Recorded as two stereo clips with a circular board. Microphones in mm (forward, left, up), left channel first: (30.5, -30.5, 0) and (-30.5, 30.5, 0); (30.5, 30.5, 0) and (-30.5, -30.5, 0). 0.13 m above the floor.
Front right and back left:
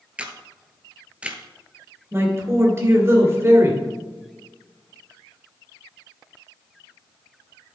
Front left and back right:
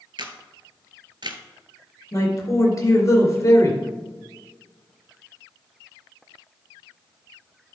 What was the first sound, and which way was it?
A camera shutter, 150° right.